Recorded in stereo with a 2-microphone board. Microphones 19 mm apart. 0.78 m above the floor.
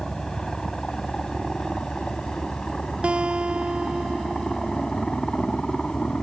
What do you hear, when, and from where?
0.0 s a helicopter: 35° left (ahead or behind); by 6.2 s 45° left (ahead or behind)
3.0 s a guitar: 60° right (ahead or behind)